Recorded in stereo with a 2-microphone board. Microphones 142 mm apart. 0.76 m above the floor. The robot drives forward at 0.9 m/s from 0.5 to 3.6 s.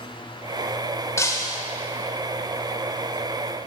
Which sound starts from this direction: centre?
Breaking glass, at 1.2 s.